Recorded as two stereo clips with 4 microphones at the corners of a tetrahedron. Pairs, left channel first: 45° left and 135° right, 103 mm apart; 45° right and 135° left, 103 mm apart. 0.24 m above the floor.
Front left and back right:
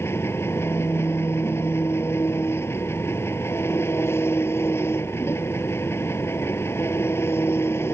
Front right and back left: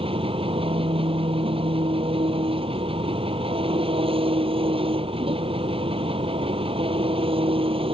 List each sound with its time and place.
0.0 s an engine running: 110° left